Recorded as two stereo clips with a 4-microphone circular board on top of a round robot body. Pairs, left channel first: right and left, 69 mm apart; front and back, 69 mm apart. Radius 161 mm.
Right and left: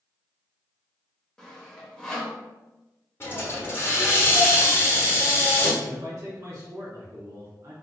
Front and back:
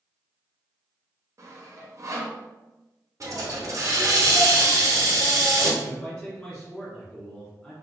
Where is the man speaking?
65° left, 1.3 m.